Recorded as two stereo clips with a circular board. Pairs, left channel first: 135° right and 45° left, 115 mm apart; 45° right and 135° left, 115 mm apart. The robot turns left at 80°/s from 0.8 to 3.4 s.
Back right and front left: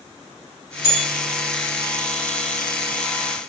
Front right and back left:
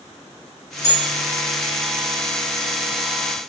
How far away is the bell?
About 2.0 m.